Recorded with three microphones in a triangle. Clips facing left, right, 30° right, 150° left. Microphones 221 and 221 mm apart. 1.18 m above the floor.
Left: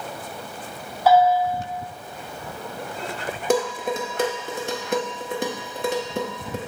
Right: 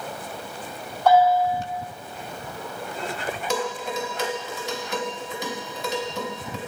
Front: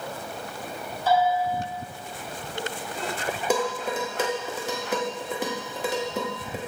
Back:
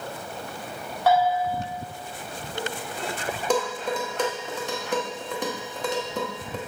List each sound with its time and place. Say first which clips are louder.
1.1 s a bell: left 1 dB, back 1 dB; 175° left, 1.1 m
3.5 s dishes clattering: left 7 dB, back 1 dB; 50° left, 1.0 m